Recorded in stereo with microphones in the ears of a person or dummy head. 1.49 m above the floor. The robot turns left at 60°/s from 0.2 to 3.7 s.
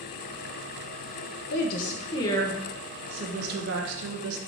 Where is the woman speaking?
70° left, 0.7 m; by 4.4 s 60° right, 0.7 m.